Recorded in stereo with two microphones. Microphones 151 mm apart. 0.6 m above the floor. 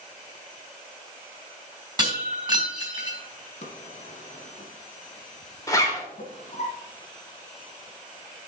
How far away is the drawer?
About 1.5 m.